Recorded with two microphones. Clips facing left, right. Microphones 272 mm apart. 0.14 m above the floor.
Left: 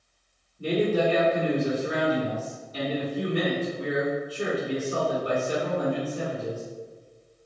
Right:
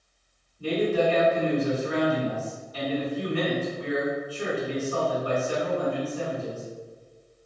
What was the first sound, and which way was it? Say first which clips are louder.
A man speaking: even; 30° left (ahead or behind).